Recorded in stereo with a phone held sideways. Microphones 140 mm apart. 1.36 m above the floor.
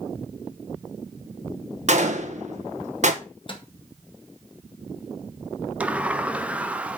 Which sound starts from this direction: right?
A gunshot, at 1.9 s.